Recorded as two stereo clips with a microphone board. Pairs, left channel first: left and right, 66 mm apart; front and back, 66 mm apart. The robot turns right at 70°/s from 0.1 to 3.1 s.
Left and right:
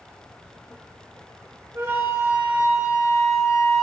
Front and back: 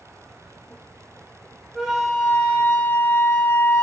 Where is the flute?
105° right, 0.6 m; by 3.8 s 10° right, 0.6 m.